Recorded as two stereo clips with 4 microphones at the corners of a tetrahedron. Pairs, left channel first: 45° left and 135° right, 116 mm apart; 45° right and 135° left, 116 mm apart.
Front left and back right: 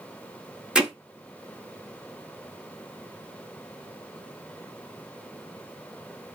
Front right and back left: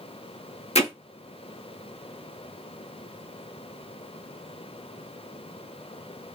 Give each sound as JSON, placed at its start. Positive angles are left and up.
{"t": 0.8, "sound": "hammering", "azimuth_deg": -55, "distance_m": 0.9}